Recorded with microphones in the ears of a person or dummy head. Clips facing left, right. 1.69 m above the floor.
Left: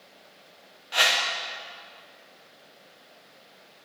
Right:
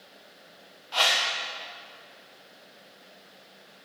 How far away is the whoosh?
About 1.2 m.